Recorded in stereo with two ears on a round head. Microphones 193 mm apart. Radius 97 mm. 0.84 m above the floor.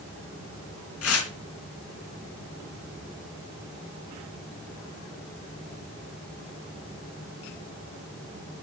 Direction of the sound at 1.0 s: 80° left.